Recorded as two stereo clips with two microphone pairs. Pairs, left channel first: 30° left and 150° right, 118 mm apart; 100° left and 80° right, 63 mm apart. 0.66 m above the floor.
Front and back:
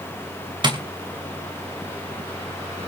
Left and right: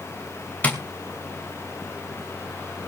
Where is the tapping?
165° left, 2.5 m.